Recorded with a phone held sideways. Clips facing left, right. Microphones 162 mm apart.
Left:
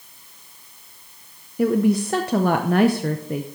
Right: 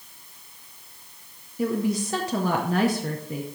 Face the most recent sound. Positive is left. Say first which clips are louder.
# left 6 dB
turn(degrees=65)  # may be behind; listen again after turning